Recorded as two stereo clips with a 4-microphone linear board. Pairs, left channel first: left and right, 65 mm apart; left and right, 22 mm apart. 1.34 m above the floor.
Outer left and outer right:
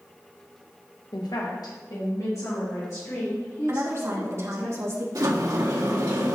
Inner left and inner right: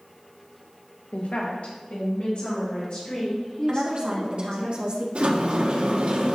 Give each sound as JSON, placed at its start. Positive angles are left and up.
{"t": 1.1, "sound": "a woman speaking", "side_deg": 80, "distance_m": 1.0}
{"t": 3.7, "sound": "a woman speaking", "side_deg": -45, "distance_m": 1.5}
{"t": 5.2, "sound": "a sliding door", "side_deg": -70, "distance_m": 1.4}